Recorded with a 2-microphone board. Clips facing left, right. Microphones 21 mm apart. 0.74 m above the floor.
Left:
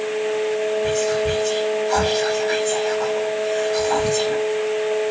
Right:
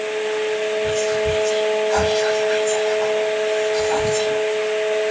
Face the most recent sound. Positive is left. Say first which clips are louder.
# even
turn(degrees=65)  # may be behind; listen again after turning